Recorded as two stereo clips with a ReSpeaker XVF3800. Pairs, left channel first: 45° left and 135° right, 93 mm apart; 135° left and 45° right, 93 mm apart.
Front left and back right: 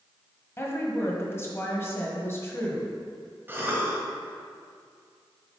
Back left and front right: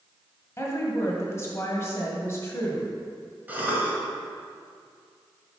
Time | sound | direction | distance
0.6 | a woman speaking | 95° left | 1.4 m
3.5 | a cough | 95° right | 1.5 m